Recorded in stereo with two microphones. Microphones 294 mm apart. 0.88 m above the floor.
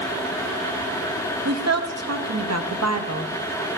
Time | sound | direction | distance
1.4 | a woman speaking | 60° right (ahead or behind) | 0.9 m